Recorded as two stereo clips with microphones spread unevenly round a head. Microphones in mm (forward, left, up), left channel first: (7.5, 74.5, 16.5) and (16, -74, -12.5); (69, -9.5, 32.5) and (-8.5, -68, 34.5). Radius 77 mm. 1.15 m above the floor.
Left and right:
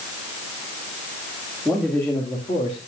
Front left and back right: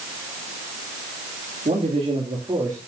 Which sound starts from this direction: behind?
A man speaking, at 1.6 s.